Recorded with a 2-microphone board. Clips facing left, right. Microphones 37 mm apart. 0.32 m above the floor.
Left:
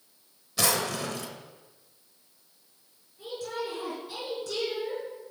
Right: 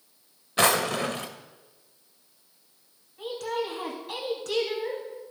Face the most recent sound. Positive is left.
turn(degrees=-60)  # may be behind; listen again after turning